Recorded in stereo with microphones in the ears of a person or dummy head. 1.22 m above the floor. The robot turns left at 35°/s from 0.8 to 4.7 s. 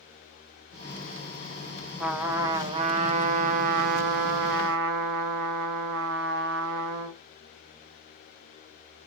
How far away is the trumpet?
About 0.9 m.